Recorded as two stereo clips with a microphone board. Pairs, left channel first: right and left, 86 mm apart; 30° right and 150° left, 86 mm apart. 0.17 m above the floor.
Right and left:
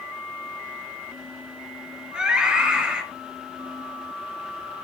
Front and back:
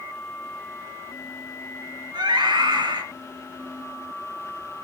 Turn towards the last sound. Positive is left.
turn(degrees=170)